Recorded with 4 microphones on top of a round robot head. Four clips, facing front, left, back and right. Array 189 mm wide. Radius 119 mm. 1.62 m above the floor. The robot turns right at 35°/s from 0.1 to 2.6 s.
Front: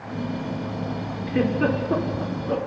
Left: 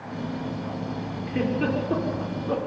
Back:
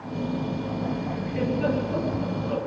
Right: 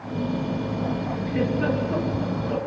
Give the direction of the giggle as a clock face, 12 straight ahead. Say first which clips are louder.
Right 1 dB, front 4 dB; 12 o'clock.